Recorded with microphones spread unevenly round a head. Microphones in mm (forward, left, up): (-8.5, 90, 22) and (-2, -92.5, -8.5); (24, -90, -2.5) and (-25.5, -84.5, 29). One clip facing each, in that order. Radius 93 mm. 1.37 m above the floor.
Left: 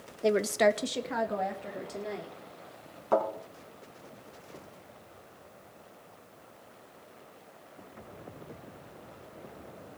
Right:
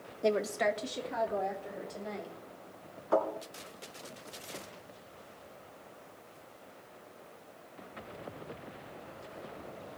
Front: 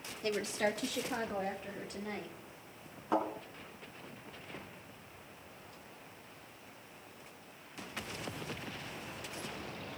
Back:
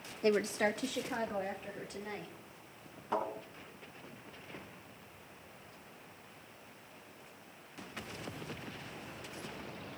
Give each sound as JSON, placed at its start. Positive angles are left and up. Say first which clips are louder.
{"t": 0.2, "sound": "a woman speaking", "louder": "left 5 dB, back 3 dB", "azimuth_deg": 180, "distance_m": 0.5}
{"t": 3.1, "sound": "a thud", "louder": "left 2 dB, front 3 dB", "azimuth_deg": 75, "distance_m": 6.0}